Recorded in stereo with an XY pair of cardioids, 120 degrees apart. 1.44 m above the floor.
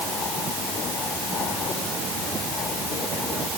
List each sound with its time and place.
Only background noise.